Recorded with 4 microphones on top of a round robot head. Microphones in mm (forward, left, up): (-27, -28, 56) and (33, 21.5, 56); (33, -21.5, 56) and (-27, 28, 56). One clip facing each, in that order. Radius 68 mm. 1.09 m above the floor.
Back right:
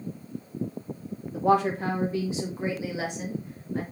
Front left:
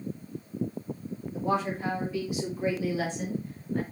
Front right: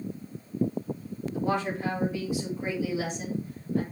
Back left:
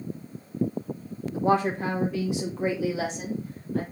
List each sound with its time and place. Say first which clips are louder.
1.3 s a woman speaking: back right 6 dB, back left 6 dB; 160° right, 1.5 m; by 3.8 s 140° left, 3.5 m